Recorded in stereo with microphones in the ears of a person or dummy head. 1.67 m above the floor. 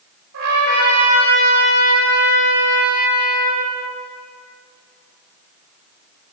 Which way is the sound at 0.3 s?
70° right (ahead or behind).